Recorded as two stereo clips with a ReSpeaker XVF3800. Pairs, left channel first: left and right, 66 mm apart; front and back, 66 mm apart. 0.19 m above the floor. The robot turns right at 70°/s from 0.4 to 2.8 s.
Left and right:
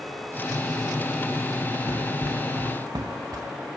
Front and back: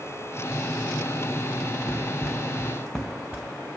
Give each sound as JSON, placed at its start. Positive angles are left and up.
{"t": 1.9, "sound": "running footsteps", "azimuth_deg": -100, "distance_m": 0.8}